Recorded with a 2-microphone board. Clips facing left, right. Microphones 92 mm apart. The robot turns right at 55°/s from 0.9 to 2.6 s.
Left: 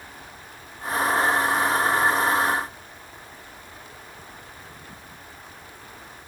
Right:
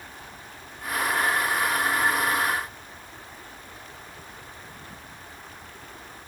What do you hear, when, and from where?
Only background noise.